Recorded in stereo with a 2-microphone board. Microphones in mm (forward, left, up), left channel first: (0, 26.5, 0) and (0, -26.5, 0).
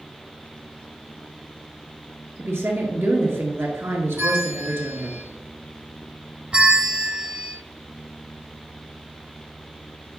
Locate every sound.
2.4 s a woman speaking: 50° right (ahead or behind), 1.9 m
4.2 s a bell: 40° right (ahead or behind), 3.5 m
6.5 s a bell: 20° right (ahead or behind), 1.0 m